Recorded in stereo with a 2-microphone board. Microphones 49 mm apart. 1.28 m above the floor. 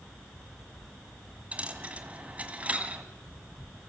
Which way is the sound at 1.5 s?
25° right (ahead or behind).